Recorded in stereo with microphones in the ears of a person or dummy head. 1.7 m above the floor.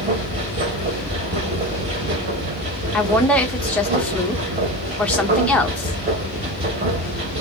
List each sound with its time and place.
0.0 s a machine running: 35° right (ahead or behind), 1.1 m
2.9 s a woman speaking: centre (ahead or behind), 0.8 m